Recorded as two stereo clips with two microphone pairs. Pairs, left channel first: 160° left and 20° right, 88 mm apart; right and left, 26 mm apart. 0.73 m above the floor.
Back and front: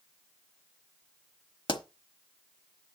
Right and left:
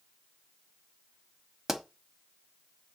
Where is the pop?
165° left, 1.1 m.